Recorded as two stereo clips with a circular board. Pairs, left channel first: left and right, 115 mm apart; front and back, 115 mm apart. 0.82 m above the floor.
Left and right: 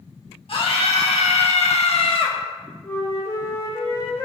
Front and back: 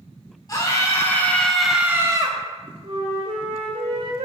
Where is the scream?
55° left, 2.5 m; by 2.4 s 135° left, 1.4 m.